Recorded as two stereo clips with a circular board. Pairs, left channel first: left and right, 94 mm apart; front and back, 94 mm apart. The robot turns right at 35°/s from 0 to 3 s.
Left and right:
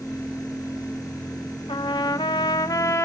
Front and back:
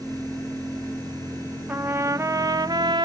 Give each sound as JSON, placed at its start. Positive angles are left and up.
{"t": 1.7, "sound": "a trumpet", "azimuth_deg": 105, "distance_m": 0.6}